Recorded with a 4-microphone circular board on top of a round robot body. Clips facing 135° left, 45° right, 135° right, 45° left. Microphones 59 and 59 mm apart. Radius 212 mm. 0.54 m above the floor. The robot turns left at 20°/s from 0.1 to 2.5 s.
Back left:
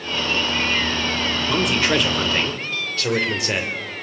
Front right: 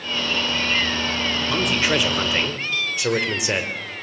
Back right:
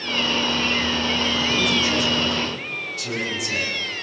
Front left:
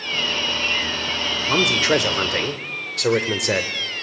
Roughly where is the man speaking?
Ahead left.